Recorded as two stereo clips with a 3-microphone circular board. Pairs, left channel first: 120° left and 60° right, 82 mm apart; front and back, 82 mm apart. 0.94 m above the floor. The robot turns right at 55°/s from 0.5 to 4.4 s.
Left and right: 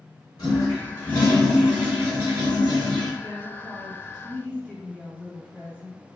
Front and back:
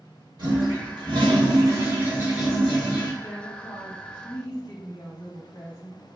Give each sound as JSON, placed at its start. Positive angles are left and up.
{"t": 0.4, "sound": "a toilet flushing", "azimuth_deg": 155, "distance_m": 1.9}
{"t": 3.2, "sound": "a woman speaking", "azimuth_deg": -25, "distance_m": 1.8}